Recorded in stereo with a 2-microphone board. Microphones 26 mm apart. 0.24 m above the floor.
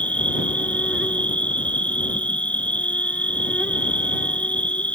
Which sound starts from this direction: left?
An insect, at 0.0 s.